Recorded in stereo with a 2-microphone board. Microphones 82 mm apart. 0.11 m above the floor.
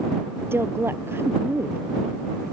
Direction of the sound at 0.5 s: 30° right (ahead or behind).